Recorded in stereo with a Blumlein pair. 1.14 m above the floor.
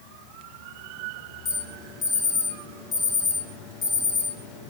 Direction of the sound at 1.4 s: 30° left.